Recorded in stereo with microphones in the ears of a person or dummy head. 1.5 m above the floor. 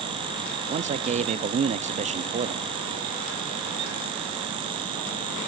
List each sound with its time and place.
0.7 s a man speaking: 25° right (ahead or behind), 0.5 m